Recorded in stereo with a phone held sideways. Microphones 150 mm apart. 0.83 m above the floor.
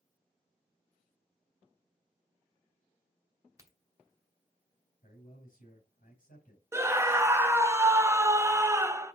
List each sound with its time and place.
3.6 s a crack: 20° right (ahead or behind), 2 m
5.0 s a man speaking: 70° left (ahead or behind), 3 m
6.7 s a scream: 15° right (ahead or behind), 0.5 m